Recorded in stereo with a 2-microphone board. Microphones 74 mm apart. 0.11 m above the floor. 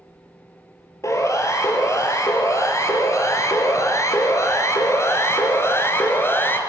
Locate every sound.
1.0 s a siren: 45° left (ahead or behind), 3.5 m; by 6.6 s 30° left (ahead or behind), 2.5 m